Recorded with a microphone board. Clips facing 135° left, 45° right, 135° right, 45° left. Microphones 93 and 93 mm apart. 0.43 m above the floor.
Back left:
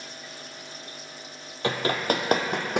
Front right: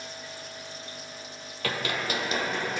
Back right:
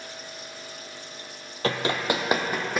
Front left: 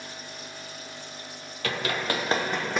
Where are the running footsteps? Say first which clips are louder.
Back left 5 dB, back right 3 dB; 170° right, 0.5 m; by 2.8 s 140° left, 1.0 m.